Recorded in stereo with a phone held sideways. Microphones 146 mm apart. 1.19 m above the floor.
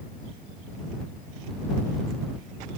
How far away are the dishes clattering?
No dishes clattering in this recording.